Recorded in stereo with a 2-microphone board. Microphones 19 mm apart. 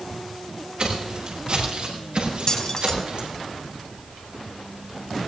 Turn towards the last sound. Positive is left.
turn(degrees=35)  # may be behind; listen again after turning